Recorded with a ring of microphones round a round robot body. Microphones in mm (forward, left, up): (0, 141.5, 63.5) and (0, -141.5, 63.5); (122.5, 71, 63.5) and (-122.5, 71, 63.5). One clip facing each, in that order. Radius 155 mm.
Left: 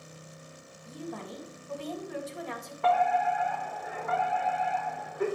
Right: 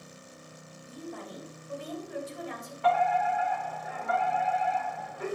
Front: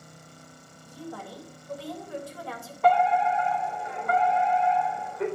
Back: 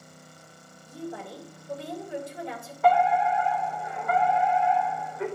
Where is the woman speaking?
110° left, 3.5 m.